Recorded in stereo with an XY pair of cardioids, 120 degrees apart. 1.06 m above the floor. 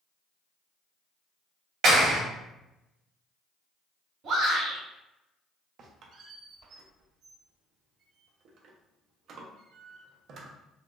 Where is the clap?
65° right, 1.7 m.